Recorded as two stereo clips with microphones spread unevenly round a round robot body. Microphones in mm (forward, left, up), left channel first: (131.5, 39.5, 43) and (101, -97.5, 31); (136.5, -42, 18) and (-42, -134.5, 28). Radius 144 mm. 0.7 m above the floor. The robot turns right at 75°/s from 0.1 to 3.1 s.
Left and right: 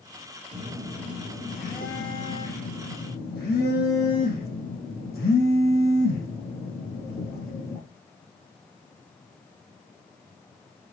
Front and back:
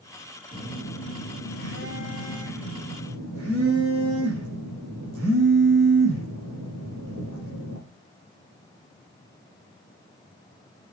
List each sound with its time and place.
0.5 s a phone buzzing: 40° right, 5 m; by 7.8 s 155° left, 5 m